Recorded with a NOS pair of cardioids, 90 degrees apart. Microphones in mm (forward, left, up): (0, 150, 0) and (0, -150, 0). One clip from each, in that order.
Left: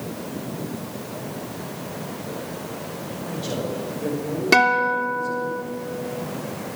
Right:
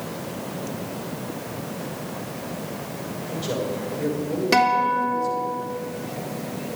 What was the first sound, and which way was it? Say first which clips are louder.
A man speaking: right 1 dB; 40° right.